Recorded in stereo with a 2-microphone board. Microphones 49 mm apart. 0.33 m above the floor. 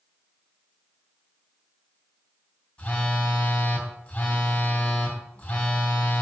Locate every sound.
2.8 s a phone buzzing: 25° left (ahead or behind), 1.9 m